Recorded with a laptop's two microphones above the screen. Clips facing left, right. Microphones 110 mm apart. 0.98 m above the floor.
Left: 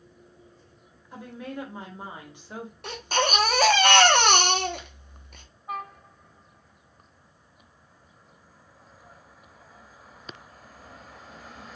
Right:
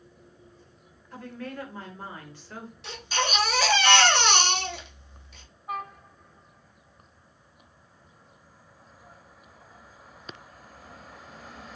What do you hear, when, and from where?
1.1 s a woman speaking: 15° left (ahead or behind), 0.9 m
2.8 s a baby crying: 50° left (ahead or behind), 0.6 m